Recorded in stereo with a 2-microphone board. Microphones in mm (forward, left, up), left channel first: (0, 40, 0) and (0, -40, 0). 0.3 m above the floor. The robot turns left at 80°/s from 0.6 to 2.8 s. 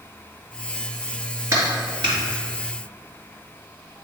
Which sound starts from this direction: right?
A clap, at 1.5 s.